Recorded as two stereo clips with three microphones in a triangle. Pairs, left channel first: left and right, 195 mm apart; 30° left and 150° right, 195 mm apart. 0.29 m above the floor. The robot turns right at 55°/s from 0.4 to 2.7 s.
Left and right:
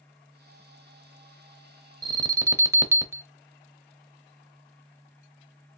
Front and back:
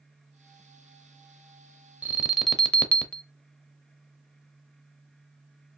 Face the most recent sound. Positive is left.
turn(degrees=-45)